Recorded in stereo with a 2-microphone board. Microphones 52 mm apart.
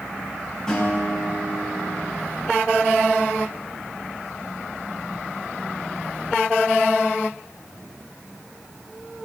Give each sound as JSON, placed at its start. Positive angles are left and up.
{"t": 0.7, "sound": "a guitar", "side_deg": 10, "distance_m": 7.0}